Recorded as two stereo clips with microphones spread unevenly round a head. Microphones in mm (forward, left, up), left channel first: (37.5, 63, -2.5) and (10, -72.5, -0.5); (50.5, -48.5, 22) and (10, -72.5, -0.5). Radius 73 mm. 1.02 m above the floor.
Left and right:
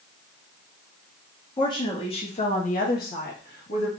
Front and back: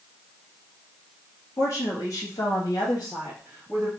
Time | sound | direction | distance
1.6 | a woman speaking | 20° left | 1.7 m